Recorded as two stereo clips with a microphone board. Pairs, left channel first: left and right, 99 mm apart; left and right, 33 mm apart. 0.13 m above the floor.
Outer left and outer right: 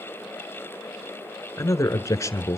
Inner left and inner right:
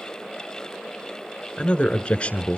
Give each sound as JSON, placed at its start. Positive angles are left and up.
{"t": 1.6, "sound": "a man speaking", "side_deg": 30, "distance_m": 1.3}